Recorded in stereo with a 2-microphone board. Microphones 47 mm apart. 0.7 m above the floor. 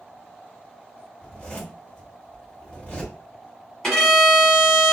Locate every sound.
1.2 s a zipper: 20° left (ahead or behind), 1.5 m
3.8 s a violin: 10° left (ahead or behind), 1.9 m